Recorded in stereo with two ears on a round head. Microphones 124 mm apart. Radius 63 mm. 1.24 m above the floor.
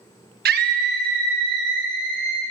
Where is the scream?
75° right (ahead or behind), 1.0 m; by 2.4 s 80° right, 3 m.